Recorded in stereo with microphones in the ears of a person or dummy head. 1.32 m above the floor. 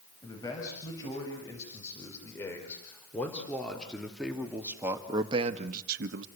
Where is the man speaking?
15° left (ahead or behind), 7.5 m; by 6.3 s 80° right, 1.5 m.